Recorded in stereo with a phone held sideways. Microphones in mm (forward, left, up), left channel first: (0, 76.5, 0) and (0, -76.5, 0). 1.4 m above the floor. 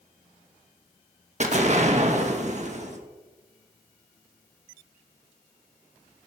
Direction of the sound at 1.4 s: 50° right (ahead or behind).